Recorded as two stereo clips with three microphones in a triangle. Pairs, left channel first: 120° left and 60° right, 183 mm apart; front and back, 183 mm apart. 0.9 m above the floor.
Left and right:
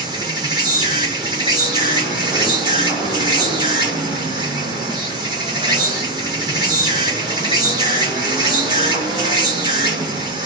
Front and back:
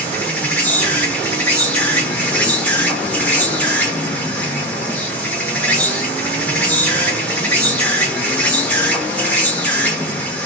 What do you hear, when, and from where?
0.0 s an insect: 70° right, 1.3 m